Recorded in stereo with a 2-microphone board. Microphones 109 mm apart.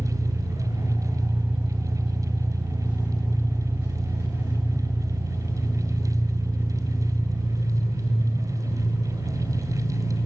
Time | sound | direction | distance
0.0 | an engine running | 20° right (ahead or behind) | 7.5 m